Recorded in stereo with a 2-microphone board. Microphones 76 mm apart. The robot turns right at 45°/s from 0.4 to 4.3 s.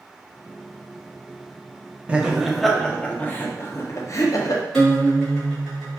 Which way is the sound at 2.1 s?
20° right.